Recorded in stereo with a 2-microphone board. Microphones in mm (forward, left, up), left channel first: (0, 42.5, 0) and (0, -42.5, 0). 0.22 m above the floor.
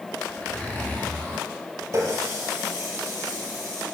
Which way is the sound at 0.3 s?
15° left (ahead or behind).